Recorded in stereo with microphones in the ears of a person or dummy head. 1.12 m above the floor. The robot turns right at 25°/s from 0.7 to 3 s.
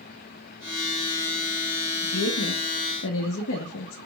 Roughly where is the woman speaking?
Left.